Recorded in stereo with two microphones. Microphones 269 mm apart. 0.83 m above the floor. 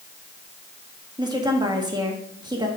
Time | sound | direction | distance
1.2 | a woman speaking | 15° right (ahead or behind) | 1.5 m